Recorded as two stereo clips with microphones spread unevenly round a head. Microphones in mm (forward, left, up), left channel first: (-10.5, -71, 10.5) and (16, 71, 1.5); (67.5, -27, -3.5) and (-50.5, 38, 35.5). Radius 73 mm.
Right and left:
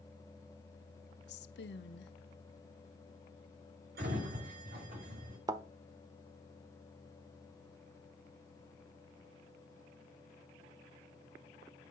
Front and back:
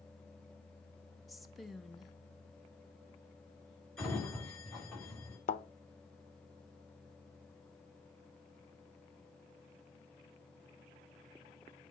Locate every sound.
1.3 s a woman speaking: 120° right, 1.0 m
4.0 s a sliding door: 55° left, 6.5 m
5.5 s a thud: 15° left, 1.0 m